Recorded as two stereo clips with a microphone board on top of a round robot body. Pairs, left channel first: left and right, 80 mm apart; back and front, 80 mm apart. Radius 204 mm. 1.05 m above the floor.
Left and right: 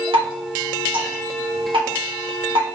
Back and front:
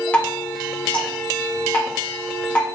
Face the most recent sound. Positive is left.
turn(degrees=-105)